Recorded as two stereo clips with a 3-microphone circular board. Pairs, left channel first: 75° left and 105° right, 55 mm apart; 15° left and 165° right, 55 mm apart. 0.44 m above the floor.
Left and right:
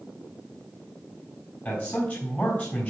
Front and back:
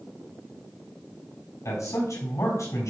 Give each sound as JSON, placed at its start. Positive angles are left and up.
{"t": 1.6, "sound": "a man speaking", "azimuth_deg": 20, "distance_m": 3.5}